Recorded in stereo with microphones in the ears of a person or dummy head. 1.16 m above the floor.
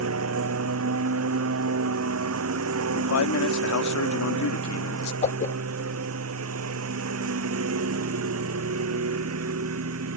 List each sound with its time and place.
0.0 s a lawn mower: 75° right (ahead or behind)
3.0 s a man speaking: 75° left (ahead or behind)
5.2 s a whoosh: 40° left (ahead or behind)